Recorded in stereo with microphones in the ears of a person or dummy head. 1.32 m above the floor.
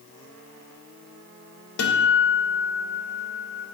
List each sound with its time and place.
1.8 s a guitar: 65° left (ahead or behind), 0.6 m